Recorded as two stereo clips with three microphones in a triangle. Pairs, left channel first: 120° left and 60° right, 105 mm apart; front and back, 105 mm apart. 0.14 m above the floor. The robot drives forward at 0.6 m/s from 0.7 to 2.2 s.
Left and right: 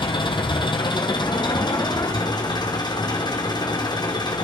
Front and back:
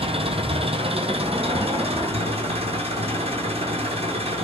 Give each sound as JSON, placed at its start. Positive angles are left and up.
{"t": 0.0, "sound": "an engine running", "azimuth_deg": 160, "distance_m": 1.8}